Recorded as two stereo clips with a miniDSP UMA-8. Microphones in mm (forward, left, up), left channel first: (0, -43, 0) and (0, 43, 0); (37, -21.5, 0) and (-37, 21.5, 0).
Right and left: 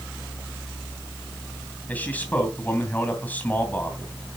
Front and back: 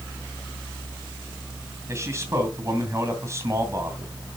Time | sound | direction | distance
1.9 | a man speaking | 160° right | 2.5 m